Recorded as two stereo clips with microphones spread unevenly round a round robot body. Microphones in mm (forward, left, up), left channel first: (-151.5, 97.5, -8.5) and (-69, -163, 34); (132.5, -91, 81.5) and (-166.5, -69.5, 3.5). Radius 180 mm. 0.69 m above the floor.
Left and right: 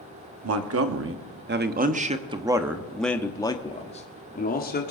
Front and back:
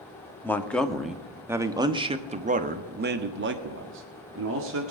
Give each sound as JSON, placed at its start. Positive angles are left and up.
{"t": 0.4, "sound": "a man speaking", "azimuth_deg": -95, "distance_m": 1.7}